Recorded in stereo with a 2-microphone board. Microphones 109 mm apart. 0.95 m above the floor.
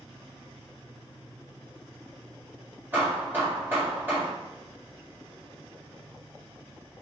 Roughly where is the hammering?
Centre.